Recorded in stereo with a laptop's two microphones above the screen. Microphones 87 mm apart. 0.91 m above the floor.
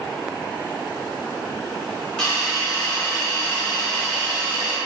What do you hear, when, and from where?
2.2 s a hiss: 10° left (ahead or behind), 0.8 m